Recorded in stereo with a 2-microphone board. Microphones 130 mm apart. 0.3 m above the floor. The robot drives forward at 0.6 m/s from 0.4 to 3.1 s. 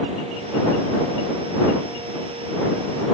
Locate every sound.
Only background noise.